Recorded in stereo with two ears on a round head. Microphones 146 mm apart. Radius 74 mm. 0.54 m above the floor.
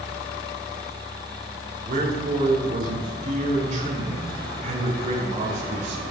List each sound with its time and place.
1.9 s a man speaking: 50° right (ahead or behind), 7 m